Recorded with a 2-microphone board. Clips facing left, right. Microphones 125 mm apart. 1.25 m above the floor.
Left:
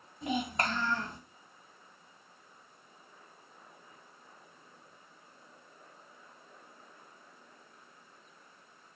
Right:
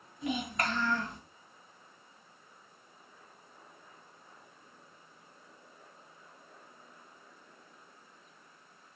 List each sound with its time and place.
0.2 s a child speaking: 30° left (ahead or behind), 1.1 m